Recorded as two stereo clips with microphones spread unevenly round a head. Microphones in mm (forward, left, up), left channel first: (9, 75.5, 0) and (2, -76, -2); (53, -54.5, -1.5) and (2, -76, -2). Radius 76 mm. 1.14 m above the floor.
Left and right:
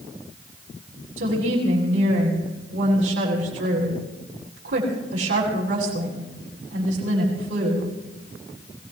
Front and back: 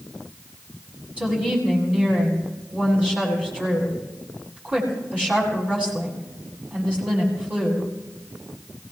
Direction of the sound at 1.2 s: 90° right.